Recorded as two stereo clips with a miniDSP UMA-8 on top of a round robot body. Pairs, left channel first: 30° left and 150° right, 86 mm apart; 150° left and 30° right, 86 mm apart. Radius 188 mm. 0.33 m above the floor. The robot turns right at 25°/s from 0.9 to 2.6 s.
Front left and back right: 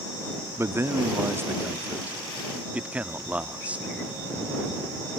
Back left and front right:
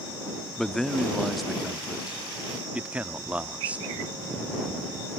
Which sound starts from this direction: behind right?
A man speaking, at 0.6 s.